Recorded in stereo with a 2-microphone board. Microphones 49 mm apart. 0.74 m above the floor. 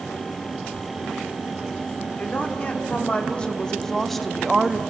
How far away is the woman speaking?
About 2.5 m.